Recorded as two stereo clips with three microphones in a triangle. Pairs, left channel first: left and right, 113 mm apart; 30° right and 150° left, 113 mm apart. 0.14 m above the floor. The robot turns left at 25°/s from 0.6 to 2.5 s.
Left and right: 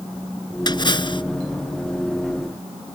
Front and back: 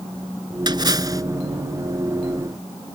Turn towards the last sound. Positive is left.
turn(degrees=75)